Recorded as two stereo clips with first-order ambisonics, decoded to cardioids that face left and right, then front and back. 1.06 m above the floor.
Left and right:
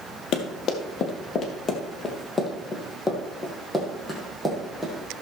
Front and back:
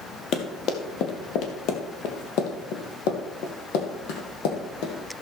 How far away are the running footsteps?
About 1.9 m.